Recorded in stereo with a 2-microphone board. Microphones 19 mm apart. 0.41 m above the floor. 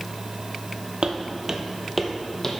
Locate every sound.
1.0 s footsteps: 55° right (ahead or behind), 0.9 m; by 2.5 s 15° left (ahead or behind), 1.2 m